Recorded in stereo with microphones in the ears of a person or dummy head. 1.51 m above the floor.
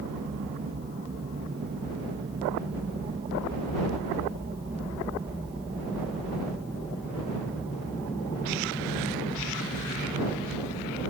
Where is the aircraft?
35° right (ahead or behind); by 11.1 s 25° left (ahead or behind).